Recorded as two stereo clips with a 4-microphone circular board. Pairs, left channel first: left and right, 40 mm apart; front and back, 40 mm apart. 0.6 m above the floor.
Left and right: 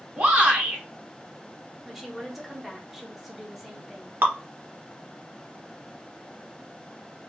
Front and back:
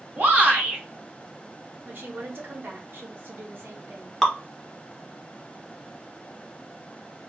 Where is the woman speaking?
175° right, 1.0 m.